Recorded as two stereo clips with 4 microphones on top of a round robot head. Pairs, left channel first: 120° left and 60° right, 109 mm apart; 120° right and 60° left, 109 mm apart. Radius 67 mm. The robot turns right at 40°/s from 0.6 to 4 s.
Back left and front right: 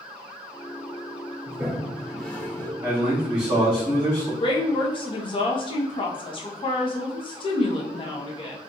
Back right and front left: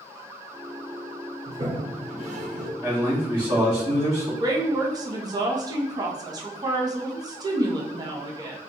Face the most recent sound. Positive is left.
turn(degrees=100)